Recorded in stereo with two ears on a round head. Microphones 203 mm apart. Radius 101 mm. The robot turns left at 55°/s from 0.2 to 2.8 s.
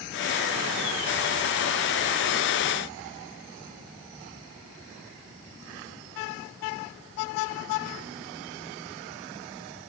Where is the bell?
No bell in this recording.